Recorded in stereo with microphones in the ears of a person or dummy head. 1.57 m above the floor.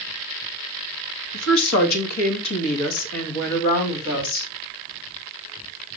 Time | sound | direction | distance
1.3 | a woman speaking | 75° left (ahead or behind) | 1.8 m